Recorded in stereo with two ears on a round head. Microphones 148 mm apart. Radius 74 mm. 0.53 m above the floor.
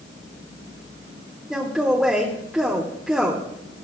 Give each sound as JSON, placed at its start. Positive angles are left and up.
{"t": 1.5, "sound": "a man speaking", "side_deg": 0, "distance_m": 1.2}